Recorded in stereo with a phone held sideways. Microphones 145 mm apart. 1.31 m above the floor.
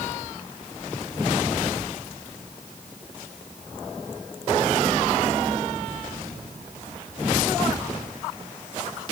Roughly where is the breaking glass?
I don't hear breaking glass.